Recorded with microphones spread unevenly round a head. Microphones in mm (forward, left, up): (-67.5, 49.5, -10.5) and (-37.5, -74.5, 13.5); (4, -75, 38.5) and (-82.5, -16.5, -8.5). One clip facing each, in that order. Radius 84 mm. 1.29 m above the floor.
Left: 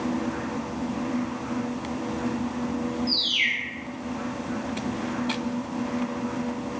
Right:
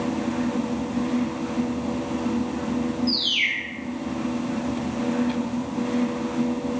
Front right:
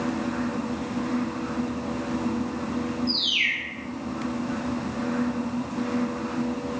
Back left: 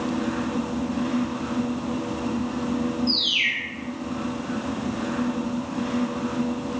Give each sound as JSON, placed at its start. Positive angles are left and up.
{"t": 3.1, "sound": "a bird", "azimuth_deg": -150, "distance_m": 4.0}